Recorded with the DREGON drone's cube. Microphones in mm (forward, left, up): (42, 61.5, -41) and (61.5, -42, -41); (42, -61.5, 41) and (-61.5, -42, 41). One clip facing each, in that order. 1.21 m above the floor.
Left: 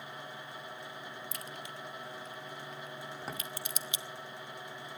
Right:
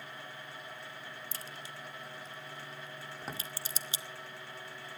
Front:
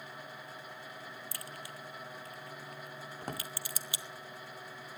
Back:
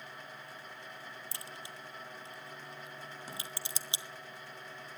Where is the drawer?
10° left, 1.8 m.